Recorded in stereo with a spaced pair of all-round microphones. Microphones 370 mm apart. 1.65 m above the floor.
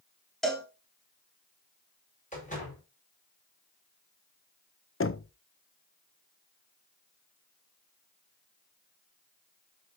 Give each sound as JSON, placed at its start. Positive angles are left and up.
{"t": 0.4, "sound": "a cowbell", "side_deg": 0, "distance_m": 1.7}
{"t": 2.3, "sound": "a door slam", "side_deg": 20, "distance_m": 5.5}
{"t": 5.0, "sound": "knocking", "side_deg": 35, "distance_m": 0.5}